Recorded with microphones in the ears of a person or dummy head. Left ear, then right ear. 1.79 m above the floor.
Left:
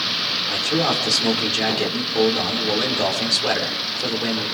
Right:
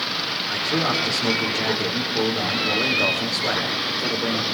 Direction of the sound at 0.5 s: 50° left (ahead or behind).